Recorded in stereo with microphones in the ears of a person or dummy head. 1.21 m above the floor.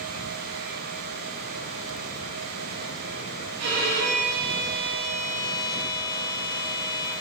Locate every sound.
3.6 s a violin: 65° right (ahead or behind), 3 m